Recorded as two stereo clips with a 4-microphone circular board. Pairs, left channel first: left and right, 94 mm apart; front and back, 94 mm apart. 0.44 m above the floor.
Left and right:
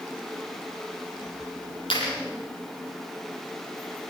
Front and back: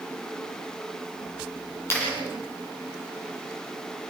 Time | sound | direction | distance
1.9 | a clap | 65° left | 10 m